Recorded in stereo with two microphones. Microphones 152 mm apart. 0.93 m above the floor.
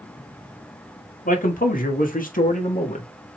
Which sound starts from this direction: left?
A man speaking, at 1.2 s.